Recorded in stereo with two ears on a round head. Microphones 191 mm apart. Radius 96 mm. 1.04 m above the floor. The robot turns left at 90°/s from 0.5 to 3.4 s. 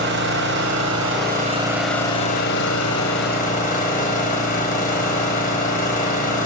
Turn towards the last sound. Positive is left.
turn(degrees=40)